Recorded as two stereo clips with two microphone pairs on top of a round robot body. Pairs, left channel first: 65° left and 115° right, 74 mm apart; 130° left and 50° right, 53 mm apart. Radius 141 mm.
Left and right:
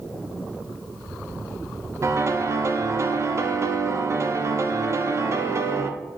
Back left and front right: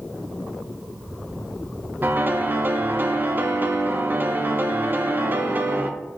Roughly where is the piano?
Right.